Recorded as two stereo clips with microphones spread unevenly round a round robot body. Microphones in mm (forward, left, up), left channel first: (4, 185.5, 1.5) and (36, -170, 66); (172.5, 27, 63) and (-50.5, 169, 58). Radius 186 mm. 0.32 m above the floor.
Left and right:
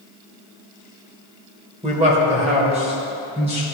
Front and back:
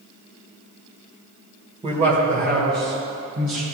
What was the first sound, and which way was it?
A man speaking, 160° right.